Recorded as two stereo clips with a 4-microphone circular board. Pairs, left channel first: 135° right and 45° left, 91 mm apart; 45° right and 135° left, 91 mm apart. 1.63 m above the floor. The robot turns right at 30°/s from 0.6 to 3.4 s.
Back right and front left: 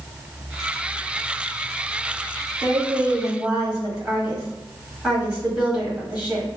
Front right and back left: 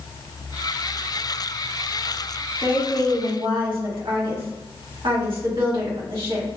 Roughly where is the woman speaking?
Left.